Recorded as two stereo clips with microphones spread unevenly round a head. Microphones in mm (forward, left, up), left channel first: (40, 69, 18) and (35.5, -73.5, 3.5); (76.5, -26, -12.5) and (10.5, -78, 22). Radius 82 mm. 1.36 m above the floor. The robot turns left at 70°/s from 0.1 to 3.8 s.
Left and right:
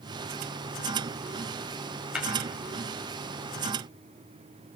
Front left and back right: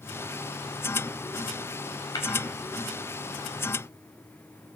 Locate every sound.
2.1 s tapping: 10° right, 7 m; by 2.3 s 15° right, 7 m